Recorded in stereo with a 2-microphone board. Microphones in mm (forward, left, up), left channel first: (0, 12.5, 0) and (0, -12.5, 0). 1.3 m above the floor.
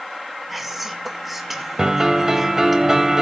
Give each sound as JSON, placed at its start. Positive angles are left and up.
{"t": 0.5, "sound": "whispering", "side_deg": -5, "distance_m": 1.9}
{"t": 1.8, "sound": "a piano", "side_deg": -20, "distance_m": 1.9}